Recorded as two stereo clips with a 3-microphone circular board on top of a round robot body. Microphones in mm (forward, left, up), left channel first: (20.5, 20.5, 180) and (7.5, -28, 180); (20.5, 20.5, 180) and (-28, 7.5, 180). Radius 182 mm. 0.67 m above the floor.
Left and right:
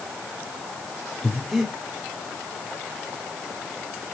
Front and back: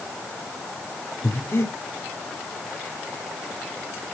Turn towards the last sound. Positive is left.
turn(degrees=-15)